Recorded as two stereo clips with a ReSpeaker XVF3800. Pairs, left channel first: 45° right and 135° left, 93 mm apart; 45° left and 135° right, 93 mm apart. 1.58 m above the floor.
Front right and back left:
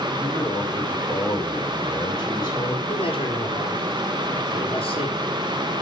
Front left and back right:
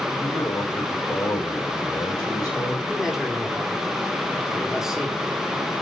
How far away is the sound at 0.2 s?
About 7 m.